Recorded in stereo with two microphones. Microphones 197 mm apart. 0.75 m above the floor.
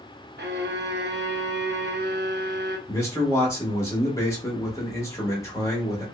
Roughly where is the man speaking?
Centre.